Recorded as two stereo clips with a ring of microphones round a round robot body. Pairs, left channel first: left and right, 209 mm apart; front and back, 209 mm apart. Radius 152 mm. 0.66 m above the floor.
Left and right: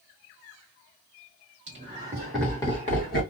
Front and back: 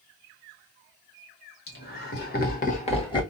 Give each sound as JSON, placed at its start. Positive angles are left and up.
{"t": 1.7, "sound": "laughter", "azimuth_deg": -35, "distance_m": 1.6}